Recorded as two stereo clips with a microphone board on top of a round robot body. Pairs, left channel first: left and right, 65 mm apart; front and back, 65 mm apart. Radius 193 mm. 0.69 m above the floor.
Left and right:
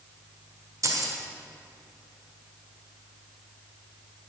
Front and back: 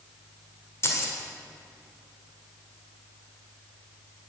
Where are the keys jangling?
50° right, 1.9 m.